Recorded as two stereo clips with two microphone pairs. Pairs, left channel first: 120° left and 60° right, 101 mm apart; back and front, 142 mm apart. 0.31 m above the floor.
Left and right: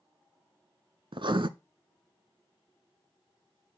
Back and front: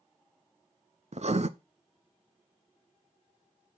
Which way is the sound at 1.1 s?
35° right.